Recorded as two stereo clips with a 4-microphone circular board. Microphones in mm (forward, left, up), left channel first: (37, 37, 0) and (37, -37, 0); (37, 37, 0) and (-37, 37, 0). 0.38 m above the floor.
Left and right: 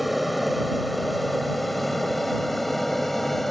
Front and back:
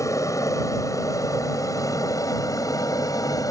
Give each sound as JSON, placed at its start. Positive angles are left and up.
{"t": 0.0, "sound": "an aircraft", "azimuth_deg": 0}